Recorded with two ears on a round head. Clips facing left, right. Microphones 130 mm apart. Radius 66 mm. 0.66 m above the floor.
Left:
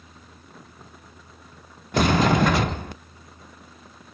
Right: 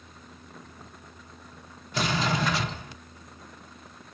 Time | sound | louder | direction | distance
1.9 | a sliding door | left 8 dB | 50° left (ahead or behind) | 0.5 m